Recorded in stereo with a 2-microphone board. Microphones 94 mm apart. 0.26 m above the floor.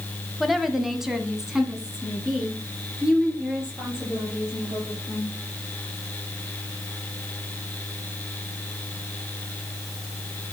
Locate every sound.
0.4 s a woman speaking: centre (ahead or behind), 1.0 m; by 5.3 s 10° right (ahead or behind), 6.5 m